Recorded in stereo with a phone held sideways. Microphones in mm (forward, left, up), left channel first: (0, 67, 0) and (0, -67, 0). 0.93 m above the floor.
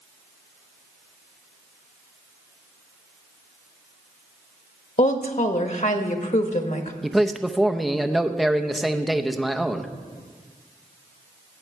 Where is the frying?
I don't hear frying.